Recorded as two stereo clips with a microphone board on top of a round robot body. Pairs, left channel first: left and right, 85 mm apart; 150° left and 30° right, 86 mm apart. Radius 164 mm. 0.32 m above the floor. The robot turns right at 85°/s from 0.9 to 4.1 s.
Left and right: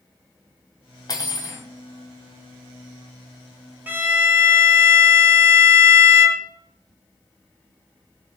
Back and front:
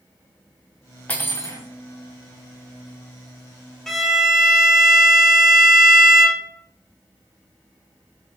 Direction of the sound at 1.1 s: 85° left.